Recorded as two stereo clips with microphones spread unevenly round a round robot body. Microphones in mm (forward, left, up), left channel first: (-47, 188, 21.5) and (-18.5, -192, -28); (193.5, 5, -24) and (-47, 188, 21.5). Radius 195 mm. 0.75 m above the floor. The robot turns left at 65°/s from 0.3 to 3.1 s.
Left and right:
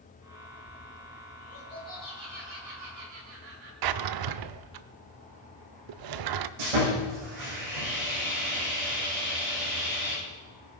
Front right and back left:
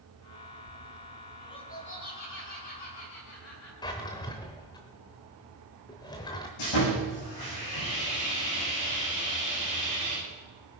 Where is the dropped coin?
I don't hear a dropped coin.